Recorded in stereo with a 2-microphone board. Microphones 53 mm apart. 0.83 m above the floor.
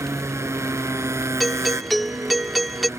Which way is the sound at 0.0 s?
60° right (ahead or behind).